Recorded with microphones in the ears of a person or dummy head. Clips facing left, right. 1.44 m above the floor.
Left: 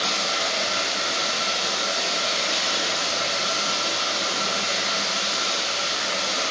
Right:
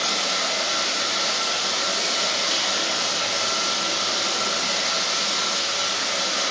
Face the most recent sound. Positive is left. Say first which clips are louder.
# even
turn(degrees=-55)  # may be behind; listen again after turning